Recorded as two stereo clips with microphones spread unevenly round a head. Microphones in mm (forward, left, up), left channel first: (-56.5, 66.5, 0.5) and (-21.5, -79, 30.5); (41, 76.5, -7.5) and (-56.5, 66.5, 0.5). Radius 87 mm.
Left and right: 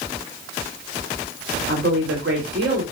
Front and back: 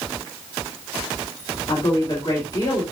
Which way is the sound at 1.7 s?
60° right.